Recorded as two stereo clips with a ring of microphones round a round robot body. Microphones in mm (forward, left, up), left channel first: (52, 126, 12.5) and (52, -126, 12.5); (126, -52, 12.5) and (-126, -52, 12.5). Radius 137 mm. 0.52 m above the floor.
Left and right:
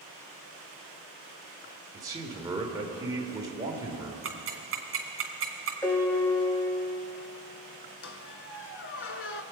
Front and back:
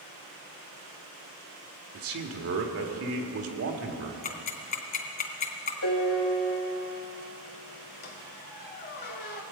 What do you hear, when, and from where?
1.9 s a man speaking: 165° right, 1.4 m
4.2 s ticking: 50° right, 2.5 m
5.8 s a piano: 10° left, 1.7 m
8.0 s a squeak: 55° left, 0.9 m